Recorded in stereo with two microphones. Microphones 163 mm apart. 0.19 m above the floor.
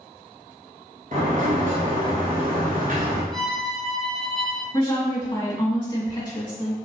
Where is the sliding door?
55° right (ahead or behind), 1.3 m.